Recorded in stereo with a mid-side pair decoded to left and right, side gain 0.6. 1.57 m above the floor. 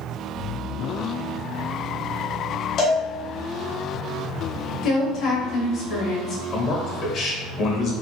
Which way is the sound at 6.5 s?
60° left.